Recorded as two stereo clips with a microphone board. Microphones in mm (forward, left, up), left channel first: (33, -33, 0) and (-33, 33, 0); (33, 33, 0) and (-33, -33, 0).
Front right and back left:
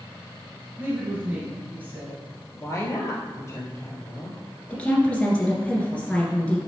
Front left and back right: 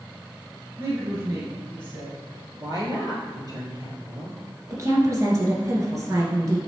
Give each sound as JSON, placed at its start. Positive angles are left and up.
{"t": 0.8, "sound": "a woman speaking", "azimuth_deg": -175, "distance_m": 1.7}
{"t": 2.5, "sound": "a woman speaking", "azimuth_deg": -100, "distance_m": 2.5}
{"t": 4.7, "sound": "a woman speaking", "azimuth_deg": -115, "distance_m": 1.9}